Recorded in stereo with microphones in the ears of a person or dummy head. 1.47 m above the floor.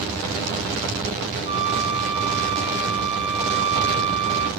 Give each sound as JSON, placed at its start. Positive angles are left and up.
{"t": 1.5, "sound": "a flute", "side_deg": -30, "distance_m": 1.2}